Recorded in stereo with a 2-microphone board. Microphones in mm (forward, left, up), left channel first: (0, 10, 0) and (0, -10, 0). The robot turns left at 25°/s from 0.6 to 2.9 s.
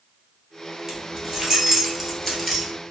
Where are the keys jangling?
20° right (ahead or behind), 1.3 m; by 2.7 s 20° left (ahead or behind), 1.3 m.